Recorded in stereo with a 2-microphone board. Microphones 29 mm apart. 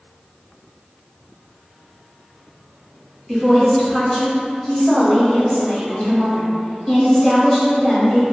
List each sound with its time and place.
3.3 s a woman speaking: 25° left (ahead or behind), 1.0 m